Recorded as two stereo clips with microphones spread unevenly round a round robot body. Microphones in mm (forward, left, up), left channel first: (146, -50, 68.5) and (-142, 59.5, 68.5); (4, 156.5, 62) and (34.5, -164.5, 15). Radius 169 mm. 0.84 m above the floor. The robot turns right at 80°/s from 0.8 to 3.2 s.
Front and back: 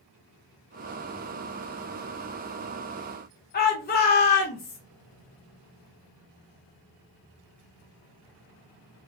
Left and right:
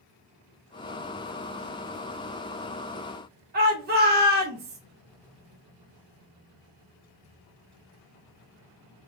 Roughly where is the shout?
Ahead right.